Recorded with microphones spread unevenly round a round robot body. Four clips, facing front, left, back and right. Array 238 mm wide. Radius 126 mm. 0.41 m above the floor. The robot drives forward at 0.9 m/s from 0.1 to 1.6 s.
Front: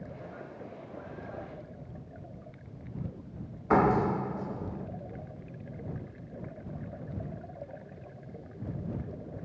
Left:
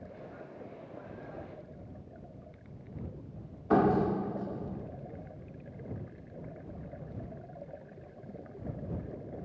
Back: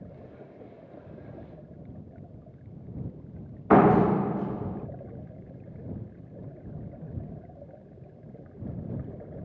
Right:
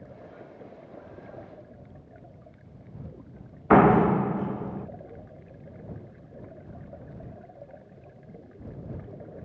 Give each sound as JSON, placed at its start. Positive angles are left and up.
{"t": 3.7, "sound": "a door slam", "azimuth_deg": -125, "distance_m": 0.5}